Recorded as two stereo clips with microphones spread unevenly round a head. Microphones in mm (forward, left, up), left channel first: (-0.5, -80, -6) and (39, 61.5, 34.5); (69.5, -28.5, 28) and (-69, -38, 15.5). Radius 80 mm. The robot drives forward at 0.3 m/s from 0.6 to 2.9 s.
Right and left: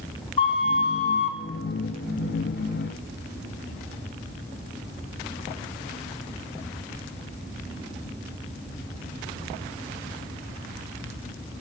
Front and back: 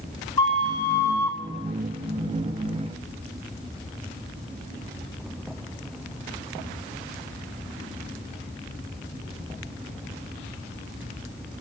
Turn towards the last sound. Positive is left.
turn(degrees=-80)